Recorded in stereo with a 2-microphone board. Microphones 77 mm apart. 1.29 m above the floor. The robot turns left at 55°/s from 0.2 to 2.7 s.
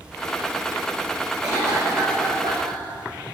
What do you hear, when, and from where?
1.4 s a cough: 50° right, 6 m; by 2.8 s 120° right, 6 m